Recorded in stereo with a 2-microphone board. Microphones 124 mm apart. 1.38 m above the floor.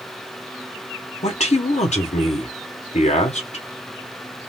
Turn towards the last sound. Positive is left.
turn(degrees=75)  # may be behind; listen again after turning